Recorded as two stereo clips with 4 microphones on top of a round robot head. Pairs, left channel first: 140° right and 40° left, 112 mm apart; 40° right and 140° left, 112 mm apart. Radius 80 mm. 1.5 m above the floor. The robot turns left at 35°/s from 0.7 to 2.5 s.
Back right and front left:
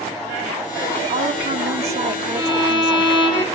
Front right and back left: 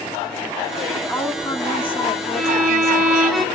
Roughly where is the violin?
Behind right.